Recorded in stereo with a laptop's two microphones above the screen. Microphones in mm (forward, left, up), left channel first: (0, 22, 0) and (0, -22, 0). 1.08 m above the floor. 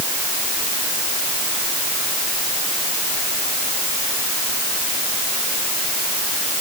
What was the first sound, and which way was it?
Only background noise.